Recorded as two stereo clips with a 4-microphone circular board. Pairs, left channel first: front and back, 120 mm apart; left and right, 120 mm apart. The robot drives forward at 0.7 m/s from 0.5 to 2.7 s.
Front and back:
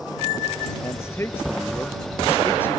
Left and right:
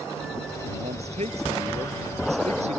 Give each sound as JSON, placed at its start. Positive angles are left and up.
{"t": 0.8, "sound": "a man speaking", "azimuth_deg": -70}